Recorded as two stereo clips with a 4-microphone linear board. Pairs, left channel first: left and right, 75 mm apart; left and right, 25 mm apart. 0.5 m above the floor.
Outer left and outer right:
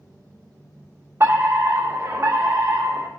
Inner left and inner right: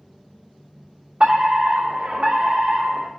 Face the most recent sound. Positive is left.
turn(degrees=-35)  # may be behind; listen again after turning